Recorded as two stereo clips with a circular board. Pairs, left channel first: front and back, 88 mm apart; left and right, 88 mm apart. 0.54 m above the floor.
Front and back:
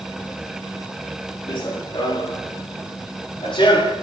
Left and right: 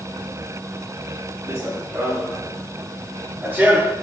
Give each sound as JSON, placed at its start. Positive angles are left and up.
{"t": 1.5, "sound": "running footsteps", "azimuth_deg": -30, "distance_m": 2.5}